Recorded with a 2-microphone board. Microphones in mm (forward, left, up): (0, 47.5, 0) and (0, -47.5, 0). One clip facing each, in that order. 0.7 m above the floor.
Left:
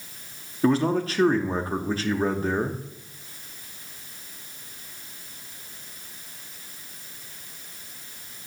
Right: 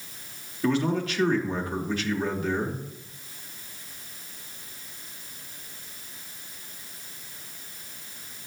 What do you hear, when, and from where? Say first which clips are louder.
0.6 s a man speaking: left 3 dB; 35° left (ahead or behind), 0.8 m